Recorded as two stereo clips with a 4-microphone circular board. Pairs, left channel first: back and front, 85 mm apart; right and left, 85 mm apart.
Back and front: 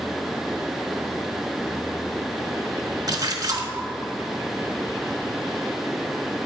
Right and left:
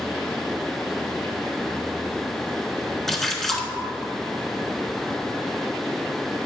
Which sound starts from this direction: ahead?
A splash, at 3.1 s.